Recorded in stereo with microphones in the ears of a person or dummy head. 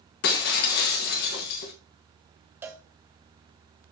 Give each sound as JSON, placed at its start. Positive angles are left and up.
{"t": 0.2, "sound": "breaking glass", "side_deg": 50, "distance_m": 1.5}
{"t": 2.6, "sound": "a cowbell", "side_deg": -5, "distance_m": 0.7}